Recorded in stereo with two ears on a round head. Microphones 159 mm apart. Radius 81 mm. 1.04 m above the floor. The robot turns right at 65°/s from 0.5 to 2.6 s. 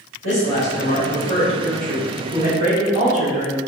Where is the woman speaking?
80° left, 1.9 m; by 3.6 s 140° right, 1.9 m.